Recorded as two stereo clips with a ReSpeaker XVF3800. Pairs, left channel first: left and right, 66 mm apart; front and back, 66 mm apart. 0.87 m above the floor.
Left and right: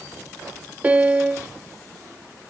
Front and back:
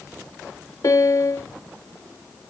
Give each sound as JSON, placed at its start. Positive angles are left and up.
{"t": 0.8, "sound": "a piano", "azimuth_deg": -25}